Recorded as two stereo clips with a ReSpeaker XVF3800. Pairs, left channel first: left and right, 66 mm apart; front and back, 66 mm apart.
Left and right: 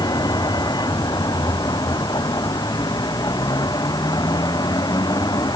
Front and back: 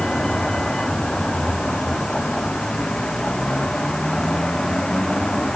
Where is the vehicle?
80° left.